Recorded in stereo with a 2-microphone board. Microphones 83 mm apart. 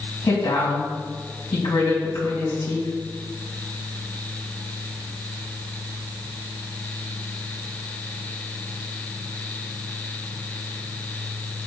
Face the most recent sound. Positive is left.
turn(degrees=65)  # may be behind; listen again after turning